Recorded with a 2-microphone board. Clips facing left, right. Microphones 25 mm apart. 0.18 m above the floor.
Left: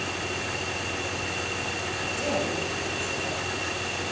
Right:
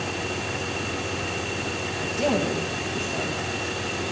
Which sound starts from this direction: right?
A woman speaking, at 2.0 s.